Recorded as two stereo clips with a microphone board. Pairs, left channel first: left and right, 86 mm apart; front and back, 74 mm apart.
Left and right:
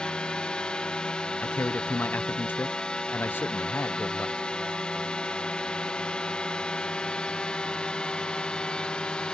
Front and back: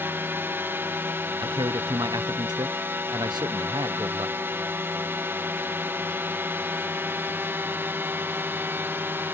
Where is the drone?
160° left.